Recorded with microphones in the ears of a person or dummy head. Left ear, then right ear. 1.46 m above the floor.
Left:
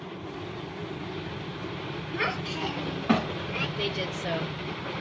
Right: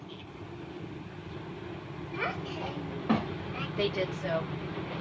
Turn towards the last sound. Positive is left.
turn(degrees=-65)  # may be behind; listen again after turning